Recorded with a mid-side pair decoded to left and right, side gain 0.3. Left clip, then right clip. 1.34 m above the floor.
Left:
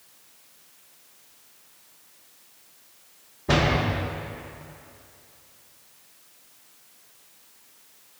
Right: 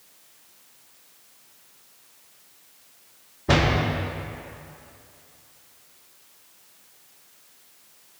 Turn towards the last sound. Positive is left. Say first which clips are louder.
# right 1 dB
turn(degrees=-25)